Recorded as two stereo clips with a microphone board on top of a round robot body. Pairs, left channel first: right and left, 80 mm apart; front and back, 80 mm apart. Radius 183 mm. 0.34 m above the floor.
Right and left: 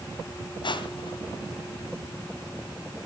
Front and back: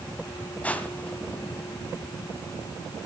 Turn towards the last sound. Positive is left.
turn(degrees=-75)